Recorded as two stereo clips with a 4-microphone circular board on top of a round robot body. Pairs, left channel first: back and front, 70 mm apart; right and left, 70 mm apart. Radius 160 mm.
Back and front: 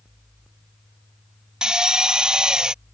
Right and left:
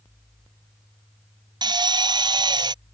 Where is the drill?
80° left.